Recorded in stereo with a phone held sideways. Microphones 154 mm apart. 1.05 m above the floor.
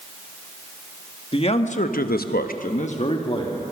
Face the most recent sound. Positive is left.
turn(degrees=30)  # may be behind; listen again after turning